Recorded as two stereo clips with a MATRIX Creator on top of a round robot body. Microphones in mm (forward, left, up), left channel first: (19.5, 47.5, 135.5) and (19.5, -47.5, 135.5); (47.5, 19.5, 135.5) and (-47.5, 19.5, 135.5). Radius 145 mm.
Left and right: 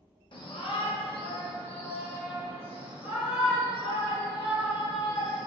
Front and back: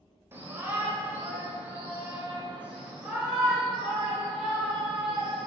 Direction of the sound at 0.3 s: 115° left.